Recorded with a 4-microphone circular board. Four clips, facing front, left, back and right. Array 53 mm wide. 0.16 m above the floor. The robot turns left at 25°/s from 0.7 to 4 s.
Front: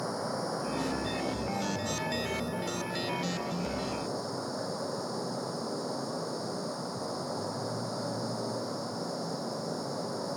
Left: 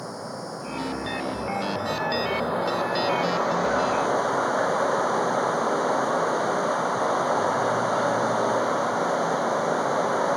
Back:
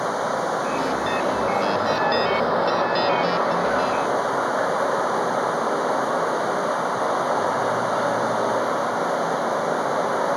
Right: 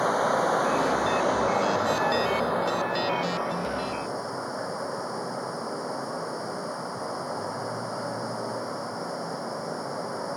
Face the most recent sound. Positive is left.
turn(degrees=145)